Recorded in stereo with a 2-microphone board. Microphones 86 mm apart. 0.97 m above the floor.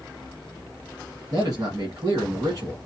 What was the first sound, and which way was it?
A man speaking, 45° right (ahead or behind).